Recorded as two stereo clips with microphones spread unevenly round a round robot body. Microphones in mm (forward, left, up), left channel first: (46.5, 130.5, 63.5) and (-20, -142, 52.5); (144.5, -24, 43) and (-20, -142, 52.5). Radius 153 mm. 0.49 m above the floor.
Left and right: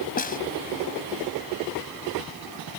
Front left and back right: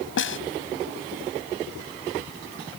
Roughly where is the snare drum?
Ahead.